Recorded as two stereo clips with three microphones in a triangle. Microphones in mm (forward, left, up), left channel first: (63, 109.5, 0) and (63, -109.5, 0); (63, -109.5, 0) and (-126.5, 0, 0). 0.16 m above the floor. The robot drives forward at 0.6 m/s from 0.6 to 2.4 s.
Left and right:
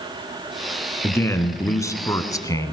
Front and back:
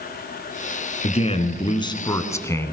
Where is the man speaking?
15° left, 2 m; by 2.7 s 35° left, 1.7 m.